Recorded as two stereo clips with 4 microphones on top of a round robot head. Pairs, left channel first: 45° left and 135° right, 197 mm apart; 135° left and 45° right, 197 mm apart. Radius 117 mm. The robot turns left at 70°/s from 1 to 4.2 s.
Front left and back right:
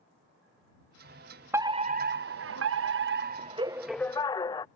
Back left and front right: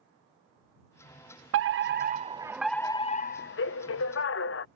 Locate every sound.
1.5 s a fire alarm: 55° right; by 4.7 s 115° left